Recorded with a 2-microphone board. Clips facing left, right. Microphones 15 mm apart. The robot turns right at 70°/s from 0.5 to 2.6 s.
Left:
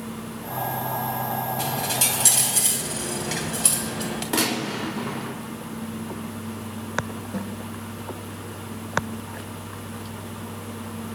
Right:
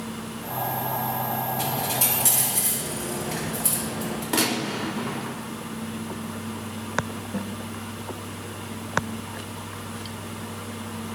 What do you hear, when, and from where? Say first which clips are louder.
1.6 s a dropped coin: left 1 dB; 10° left, 2.5 m; by 4.2 s 80° left, 2.5 m
4.3 s a gunshot: even; 10° right (ahead or behind), 4 m
7.3 s a snare drum: even; 80° left, 1.1 m